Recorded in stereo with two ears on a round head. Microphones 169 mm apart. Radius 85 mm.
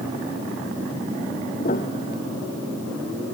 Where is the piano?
45° left (ahead or behind).